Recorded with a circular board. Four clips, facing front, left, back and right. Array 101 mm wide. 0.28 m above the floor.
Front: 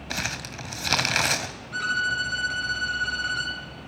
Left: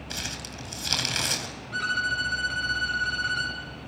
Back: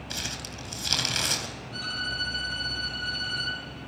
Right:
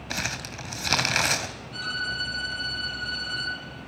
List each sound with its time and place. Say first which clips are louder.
0.1 s crumpling: right 6 dB, front 7 dB; 40° right, 1.6 m
1.7 s a violin: left 6 dB, front 10 dB; 50° left, 4.5 m